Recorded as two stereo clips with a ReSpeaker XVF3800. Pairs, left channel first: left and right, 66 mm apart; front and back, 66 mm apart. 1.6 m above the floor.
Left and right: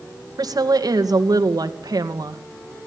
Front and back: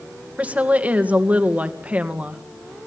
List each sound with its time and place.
0.4 s a woman speaking: 110° right, 2.5 m